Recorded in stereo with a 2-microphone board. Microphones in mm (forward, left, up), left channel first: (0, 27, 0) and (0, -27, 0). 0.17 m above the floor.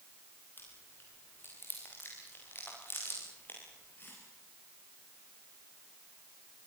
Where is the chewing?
40° left (ahead or behind), 7 m.